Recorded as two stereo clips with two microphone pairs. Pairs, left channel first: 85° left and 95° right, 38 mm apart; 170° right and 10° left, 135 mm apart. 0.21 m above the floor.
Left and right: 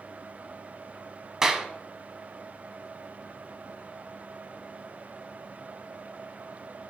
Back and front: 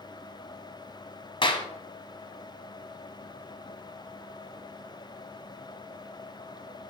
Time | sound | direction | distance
1.4 | a clap | 160° right | 1.2 m